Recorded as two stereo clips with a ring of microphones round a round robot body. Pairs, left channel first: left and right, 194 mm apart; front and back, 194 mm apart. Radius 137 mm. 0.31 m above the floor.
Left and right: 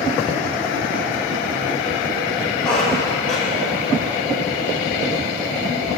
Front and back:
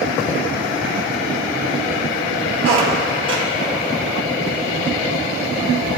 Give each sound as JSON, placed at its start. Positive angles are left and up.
{"t": 2.6, "sound": "a squeak", "azimuth_deg": 175, "distance_m": 1.4}